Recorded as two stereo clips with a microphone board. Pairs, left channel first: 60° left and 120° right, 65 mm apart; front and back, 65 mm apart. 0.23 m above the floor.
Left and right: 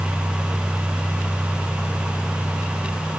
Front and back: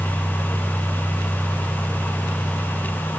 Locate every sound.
Only background noise.